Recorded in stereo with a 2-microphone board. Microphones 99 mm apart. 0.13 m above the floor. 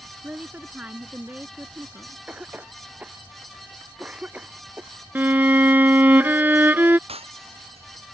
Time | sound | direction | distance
0.2 | a woman speaking | 15° right (ahead or behind) | ?
2.3 | a cough | 15° right (ahead or behind) | ?
5.2 | a violin | 20° right (ahead or behind) | ?
7.1 | breaking glass | 85° right | ?